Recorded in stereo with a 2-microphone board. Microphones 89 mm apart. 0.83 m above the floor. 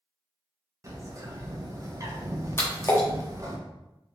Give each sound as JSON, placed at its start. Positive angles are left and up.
{"t": 0.8, "sound": "a bird", "side_deg": -35, "distance_m": 0.6}
{"t": 2.6, "sound": "a splash", "side_deg": 25, "distance_m": 0.9}